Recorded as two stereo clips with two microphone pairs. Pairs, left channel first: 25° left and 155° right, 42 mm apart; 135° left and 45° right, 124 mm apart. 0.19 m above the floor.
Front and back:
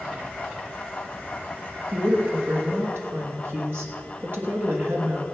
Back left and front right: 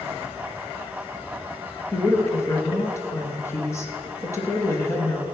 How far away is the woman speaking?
About 3 m.